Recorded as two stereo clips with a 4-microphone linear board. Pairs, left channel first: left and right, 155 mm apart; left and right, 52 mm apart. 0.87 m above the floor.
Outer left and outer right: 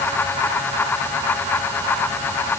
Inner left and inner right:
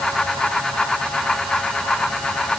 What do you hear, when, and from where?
Only background noise.